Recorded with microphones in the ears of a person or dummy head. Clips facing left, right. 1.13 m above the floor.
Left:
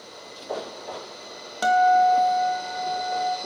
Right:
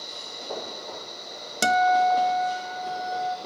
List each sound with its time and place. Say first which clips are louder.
1.6 s a guitar: left 3 dB; 25° right (ahead or behind), 0.7 m